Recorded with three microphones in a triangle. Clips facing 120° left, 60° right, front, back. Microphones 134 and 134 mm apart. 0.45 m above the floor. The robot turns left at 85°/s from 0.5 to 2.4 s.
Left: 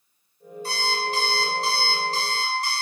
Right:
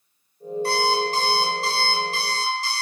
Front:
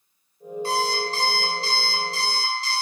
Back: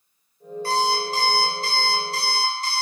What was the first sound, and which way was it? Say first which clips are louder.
An alarm clock: right 6 dB, back 2 dB; 65° right.